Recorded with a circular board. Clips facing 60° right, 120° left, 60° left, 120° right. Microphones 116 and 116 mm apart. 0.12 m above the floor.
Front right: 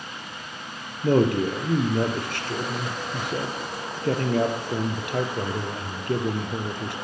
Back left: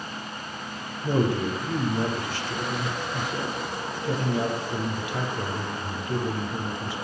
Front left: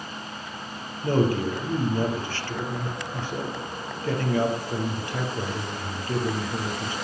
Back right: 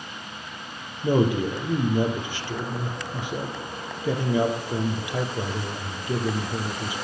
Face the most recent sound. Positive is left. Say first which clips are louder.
# front right 4 dB, back right 1 dB
turn(degrees=-45)